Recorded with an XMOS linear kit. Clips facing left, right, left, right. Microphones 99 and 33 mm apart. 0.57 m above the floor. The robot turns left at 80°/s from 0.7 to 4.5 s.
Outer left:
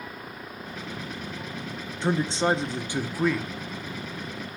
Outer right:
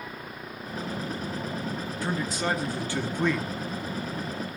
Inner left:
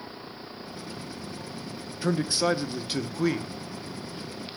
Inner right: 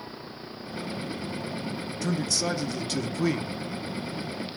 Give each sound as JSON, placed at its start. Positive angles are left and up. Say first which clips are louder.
{"t": 2.0, "sound": "a man speaking", "louder": "outer left 6 dB, inner left 3 dB", "side_deg": 25, "distance_m": 0.8}